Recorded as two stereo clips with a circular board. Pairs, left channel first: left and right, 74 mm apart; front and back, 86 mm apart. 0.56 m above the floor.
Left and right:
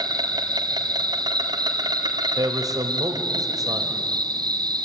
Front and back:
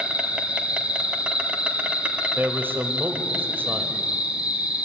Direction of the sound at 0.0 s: 105° right.